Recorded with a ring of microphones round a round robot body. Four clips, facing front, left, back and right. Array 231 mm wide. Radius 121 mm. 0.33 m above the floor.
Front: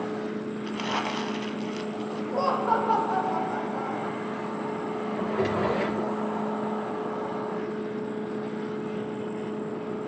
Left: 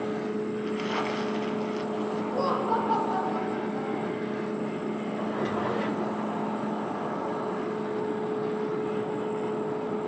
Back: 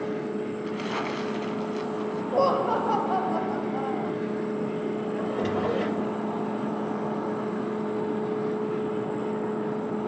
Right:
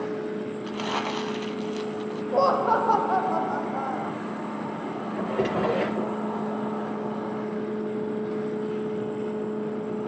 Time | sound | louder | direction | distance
0.6 | crumpling | even, even | 50° right | 1.7 m
2.3 | laughter | right 7 dB, back 2 dB | 120° right | 1.9 m
5.2 | a drawer | right 6 dB, front 3 dB | 80° right | 3.5 m